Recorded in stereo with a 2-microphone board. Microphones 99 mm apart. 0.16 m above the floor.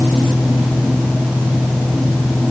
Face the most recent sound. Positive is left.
No sound to turn to.